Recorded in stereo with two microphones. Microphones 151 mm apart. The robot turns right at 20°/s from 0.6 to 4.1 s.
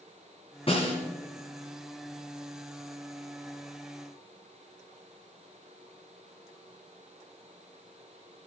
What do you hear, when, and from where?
0.7 s a snare drum: 40° left (ahead or behind), 2 m; by 1.0 s 45° left (ahead or behind), 2 m